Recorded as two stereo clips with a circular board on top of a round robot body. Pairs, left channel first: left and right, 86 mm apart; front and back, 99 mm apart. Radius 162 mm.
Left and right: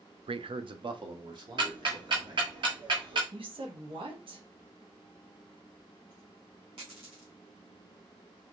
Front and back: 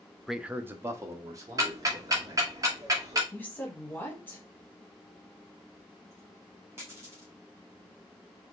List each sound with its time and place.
0.3 s a man speaking: 90° right, 0.5 m; by 2.6 s 130° right, 2.5 m
1.6 s ticking: 125° right, 1.0 m
3.3 s a woman speaking: 75° right, 1.6 m
5.8 s a dropped coin: 115° right, 2.5 m